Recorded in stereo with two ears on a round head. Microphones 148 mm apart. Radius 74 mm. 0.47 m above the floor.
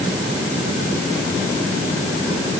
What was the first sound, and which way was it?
Only background noise.